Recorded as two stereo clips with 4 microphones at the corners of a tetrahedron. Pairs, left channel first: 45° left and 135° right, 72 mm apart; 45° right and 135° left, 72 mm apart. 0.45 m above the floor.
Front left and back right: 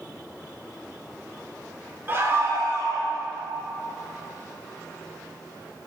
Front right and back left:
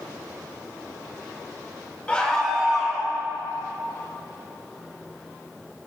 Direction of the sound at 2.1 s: 105° right.